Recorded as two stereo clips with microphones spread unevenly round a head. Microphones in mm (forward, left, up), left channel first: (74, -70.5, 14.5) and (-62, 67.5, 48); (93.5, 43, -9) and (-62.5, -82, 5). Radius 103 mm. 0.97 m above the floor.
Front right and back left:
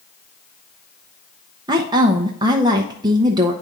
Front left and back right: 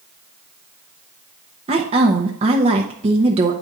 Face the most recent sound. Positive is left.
turn(degrees=-160)